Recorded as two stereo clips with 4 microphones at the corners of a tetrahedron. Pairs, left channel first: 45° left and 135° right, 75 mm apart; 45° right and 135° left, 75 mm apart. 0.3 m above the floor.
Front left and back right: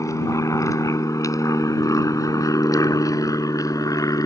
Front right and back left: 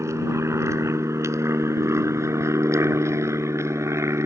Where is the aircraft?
85° left.